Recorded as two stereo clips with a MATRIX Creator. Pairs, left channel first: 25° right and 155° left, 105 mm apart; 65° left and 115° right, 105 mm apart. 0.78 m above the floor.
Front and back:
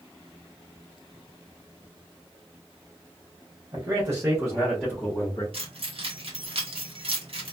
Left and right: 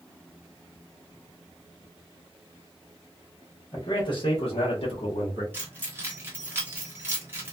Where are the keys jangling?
Straight behind, 1.1 m.